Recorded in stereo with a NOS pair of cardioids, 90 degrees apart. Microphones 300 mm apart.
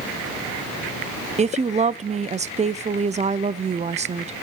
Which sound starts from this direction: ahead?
A woman speaking, at 1.4 s.